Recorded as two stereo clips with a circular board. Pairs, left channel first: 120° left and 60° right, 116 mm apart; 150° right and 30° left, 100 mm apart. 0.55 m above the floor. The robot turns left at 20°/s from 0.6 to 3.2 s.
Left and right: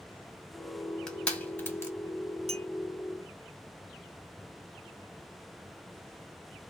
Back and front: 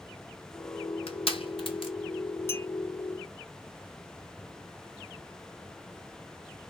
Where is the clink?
85° right, 1.1 m.